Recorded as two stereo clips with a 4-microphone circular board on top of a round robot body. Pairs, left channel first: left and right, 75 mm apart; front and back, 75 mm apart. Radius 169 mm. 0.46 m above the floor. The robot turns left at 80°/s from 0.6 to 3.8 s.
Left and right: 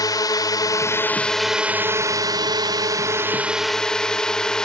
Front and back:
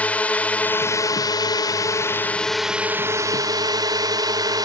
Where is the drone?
70° left; by 4.7 s 170° left.